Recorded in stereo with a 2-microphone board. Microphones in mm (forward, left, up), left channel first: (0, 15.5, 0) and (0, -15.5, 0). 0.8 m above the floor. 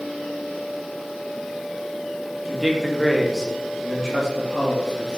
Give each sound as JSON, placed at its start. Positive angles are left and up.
{"t": 2.5, "sound": "a man speaking", "side_deg": -25, "distance_m": 0.8}